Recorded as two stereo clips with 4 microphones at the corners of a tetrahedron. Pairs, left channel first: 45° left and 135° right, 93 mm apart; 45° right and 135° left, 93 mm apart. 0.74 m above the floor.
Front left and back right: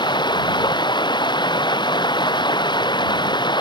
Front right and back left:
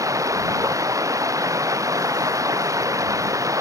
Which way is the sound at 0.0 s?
80° left.